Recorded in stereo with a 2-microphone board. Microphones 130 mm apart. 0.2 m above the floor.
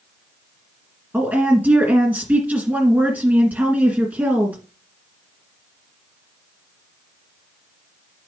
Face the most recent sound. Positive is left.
turn(degrees=-10)  # may be behind; listen again after turning